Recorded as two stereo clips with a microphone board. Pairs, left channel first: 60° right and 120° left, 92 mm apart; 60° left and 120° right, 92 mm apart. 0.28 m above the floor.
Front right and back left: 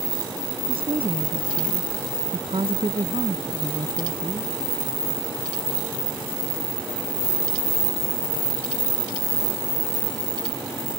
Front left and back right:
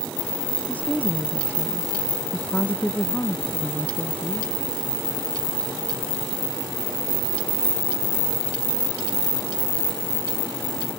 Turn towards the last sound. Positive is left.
turn(degrees=135)